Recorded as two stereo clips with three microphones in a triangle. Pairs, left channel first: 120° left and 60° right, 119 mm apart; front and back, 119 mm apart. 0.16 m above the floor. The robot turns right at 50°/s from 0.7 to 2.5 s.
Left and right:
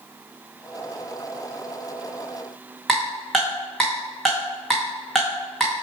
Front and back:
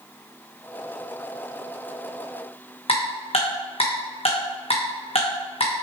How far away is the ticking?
About 2.5 m.